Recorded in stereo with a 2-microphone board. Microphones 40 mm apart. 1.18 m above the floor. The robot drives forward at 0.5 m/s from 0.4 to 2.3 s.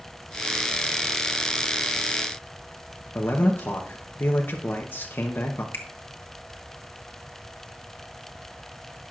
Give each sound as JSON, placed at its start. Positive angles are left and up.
{"t": 3.1, "sound": "a man speaking", "side_deg": 55, "distance_m": 0.9}
{"t": 5.7, "sound": "a finger snap", "side_deg": 70, "distance_m": 1.6}